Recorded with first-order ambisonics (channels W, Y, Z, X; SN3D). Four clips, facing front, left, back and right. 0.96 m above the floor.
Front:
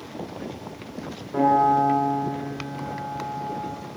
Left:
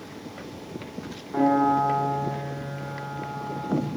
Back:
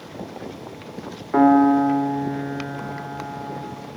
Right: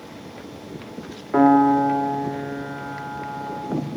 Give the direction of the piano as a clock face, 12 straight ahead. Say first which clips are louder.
Right 6 dB, back 4 dB; 5 o'clock.